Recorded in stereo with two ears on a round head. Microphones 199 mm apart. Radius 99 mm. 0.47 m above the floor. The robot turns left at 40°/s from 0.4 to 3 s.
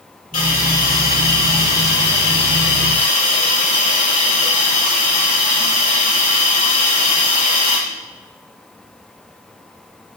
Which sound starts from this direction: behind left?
A hiss, at 0.3 s.